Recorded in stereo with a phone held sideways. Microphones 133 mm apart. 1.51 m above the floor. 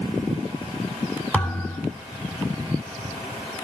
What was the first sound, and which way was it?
A thud, 10° left (ahead or behind).